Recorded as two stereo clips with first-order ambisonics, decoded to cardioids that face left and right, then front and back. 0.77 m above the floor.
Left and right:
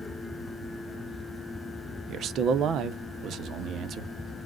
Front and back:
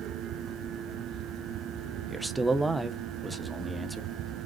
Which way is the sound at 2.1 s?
100° right.